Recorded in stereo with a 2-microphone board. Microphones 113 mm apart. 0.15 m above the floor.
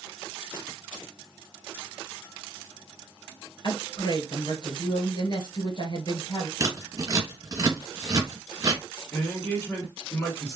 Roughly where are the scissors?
Right.